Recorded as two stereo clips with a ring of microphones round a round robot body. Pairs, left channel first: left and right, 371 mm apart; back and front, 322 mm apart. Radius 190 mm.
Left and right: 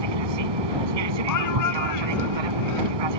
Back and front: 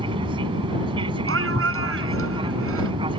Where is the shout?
50° left.